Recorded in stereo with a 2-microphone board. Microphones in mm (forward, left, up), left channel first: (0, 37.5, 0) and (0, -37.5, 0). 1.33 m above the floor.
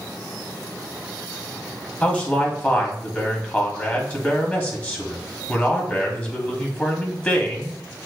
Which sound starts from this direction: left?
A man speaking, at 2.0 s.